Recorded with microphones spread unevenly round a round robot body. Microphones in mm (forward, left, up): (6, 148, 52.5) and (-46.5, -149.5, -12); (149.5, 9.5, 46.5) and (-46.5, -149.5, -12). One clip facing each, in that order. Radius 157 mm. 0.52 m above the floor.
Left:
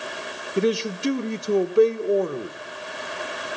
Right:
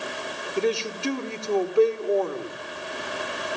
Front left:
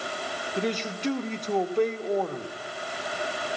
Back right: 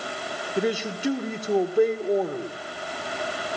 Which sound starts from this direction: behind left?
A man speaking, at 0.6 s.